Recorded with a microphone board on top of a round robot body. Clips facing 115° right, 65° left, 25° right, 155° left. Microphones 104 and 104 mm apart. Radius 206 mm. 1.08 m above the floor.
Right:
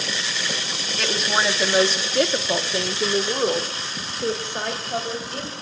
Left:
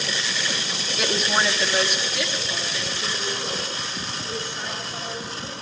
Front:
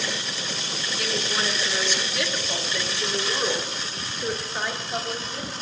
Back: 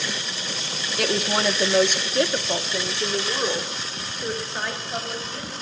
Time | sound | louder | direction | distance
1.0 | a woman speaking | even, back 6 dB | 150° left | 1.5 m